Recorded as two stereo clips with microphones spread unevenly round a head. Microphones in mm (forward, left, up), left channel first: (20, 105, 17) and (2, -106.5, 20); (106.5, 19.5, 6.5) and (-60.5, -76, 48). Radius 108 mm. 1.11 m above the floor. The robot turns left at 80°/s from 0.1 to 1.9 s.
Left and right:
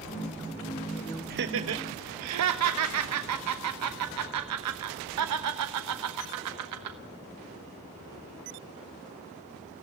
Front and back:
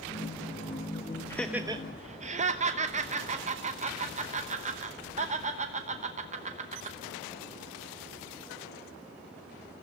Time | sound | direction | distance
1.3 | laughter | 45° right | 0.9 m